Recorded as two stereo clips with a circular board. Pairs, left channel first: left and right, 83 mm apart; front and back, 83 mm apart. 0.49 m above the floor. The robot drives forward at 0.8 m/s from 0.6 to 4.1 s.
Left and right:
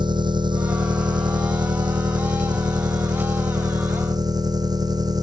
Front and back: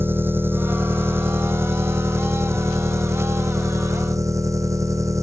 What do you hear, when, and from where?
0.0 s an engine running: 115° right; by 5.2 s 125° right